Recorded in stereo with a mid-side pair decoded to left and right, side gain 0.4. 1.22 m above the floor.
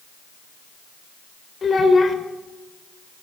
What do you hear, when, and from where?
1.6 s a child speaking: 40° left, 2.5 m